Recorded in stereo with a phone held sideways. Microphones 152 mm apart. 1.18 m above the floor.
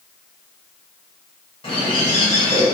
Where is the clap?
I don't hear a clap.